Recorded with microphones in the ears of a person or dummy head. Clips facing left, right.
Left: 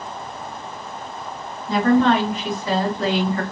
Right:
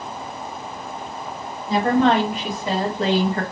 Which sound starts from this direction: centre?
A woman speaking, at 1.7 s.